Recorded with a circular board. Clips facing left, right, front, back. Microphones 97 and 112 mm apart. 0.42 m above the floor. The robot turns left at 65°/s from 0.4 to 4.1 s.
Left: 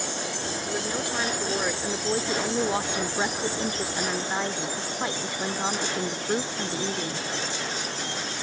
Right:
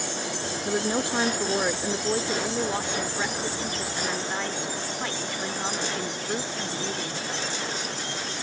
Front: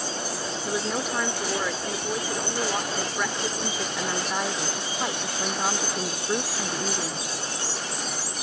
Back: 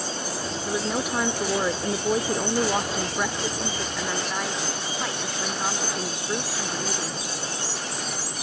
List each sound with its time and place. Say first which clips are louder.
0.7 s a woman speaking: right 6 dB, back 1 dB; 80° right; by 7.3 s 55° left